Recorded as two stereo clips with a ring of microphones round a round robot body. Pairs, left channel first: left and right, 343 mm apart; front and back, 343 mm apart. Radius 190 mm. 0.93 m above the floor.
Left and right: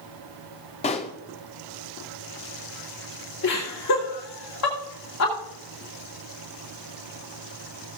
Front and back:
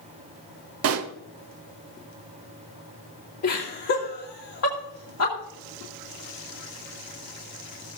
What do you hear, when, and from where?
0.8 s a pop: 155° left, 0.5 m
3.4 s laughter: 45° left, 2.5 m